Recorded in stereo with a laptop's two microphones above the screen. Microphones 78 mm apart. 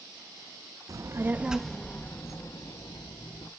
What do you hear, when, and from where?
0.9 s a child speaking: 45° right (ahead or behind), 0.9 m; by 3.5 s 60° left (ahead or behind), 1.9 m